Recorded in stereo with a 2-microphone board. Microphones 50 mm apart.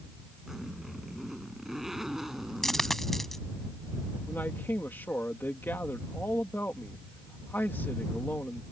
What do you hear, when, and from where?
0.5 s a zipper: 5° right (ahead or behind)
2.6 s a dropped coin: 5° left (ahead or behind)
4.3 s a man speaking: 45° left (ahead or behind)